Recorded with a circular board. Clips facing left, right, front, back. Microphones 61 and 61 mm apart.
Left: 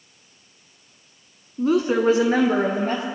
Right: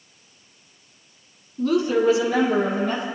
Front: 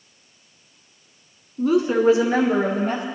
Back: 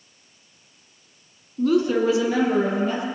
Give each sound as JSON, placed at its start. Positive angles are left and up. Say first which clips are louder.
{"t": 1.6, "sound": "a woman speaking", "louder": "even, front 1 dB", "azimuth_deg": 55, "distance_m": 1.1}